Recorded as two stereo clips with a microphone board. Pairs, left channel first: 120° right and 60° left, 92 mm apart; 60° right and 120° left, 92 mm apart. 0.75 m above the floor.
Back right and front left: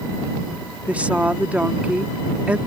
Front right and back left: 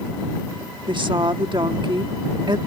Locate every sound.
0.9 s a woman speaking: 135° left